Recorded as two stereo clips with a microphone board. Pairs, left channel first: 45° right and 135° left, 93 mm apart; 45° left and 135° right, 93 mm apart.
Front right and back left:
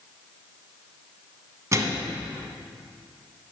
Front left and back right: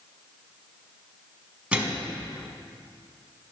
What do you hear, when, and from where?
1.7 s a microwave: 155° left, 1.1 m